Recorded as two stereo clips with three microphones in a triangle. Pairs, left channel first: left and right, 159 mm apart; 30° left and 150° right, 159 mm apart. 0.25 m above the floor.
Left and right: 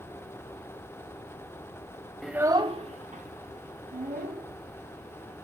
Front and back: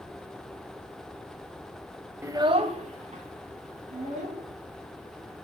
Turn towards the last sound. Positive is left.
turn(degrees=-110)